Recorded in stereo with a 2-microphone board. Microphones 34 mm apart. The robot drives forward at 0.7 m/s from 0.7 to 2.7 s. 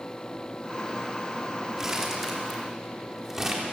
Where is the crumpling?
20° right (ahead or behind), 3 m; by 3.6 s 15° right (ahead or behind), 3.5 m.